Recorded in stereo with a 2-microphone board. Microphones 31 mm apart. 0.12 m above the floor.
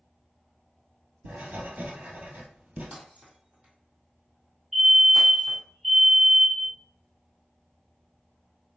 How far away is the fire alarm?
About 2.5 m.